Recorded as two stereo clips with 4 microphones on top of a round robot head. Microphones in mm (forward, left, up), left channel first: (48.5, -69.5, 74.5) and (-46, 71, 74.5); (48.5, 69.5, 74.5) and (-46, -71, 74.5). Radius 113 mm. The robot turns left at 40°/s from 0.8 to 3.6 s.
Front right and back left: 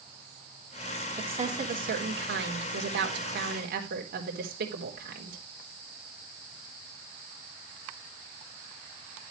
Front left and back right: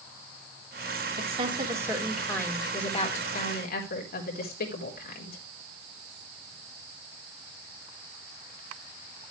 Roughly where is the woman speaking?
Behind.